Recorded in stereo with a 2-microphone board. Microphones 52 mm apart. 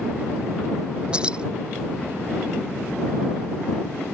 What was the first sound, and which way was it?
Keys jangling, 20° right (ahead or behind).